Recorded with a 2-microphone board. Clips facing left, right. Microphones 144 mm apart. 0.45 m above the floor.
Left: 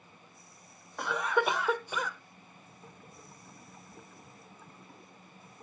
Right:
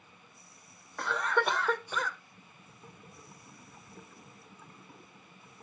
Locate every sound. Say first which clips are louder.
1.0 s a cough: left 1 dB; 10° left (ahead or behind), 1.3 m